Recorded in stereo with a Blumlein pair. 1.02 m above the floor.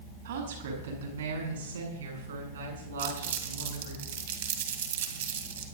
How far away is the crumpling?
About 2.5 m.